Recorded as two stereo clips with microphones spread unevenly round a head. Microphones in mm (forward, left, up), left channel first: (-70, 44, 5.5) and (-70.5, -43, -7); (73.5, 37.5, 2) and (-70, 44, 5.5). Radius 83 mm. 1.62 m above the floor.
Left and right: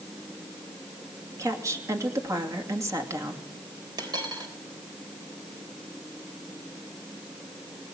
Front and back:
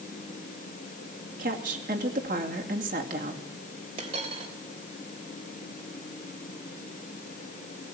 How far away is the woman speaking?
About 2.5 m.